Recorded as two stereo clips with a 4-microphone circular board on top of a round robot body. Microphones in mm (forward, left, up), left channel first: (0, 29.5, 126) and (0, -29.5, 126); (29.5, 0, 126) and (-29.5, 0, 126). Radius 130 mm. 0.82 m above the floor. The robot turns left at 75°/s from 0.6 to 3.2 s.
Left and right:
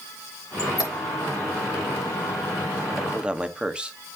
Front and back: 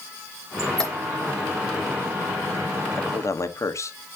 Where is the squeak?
95° left, 0.8 m; by 0.9 s 75° left, 0.8 m.